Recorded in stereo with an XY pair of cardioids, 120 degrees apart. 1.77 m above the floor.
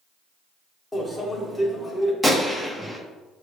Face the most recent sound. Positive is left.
turn(degrees=-5)